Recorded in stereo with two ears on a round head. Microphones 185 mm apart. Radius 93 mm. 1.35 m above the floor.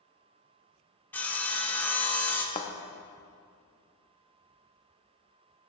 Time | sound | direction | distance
1.1 | sawing | 10° left (ahead or behind) | 0.9 m
2.5 | a thud | 30° left (ahead or behind) | 0.8 m